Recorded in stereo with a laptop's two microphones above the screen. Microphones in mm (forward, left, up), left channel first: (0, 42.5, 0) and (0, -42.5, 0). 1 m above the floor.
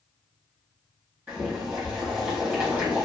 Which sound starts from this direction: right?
Boiling, at 1.3 s.